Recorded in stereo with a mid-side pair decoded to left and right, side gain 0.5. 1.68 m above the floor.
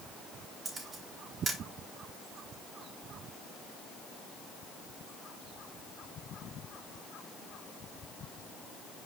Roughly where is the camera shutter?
Ahead right.